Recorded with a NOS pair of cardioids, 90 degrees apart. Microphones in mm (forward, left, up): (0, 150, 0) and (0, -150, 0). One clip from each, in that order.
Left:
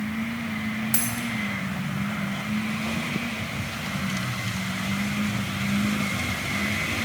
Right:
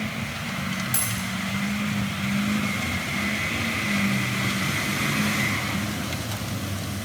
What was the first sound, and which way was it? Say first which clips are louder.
A dropped coin: even; 15° left.